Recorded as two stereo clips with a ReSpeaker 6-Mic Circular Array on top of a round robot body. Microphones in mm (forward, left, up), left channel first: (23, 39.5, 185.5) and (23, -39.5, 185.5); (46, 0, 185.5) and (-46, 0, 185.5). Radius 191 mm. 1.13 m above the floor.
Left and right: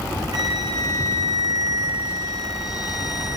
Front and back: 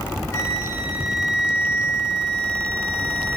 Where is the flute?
55° right, 8.5 m.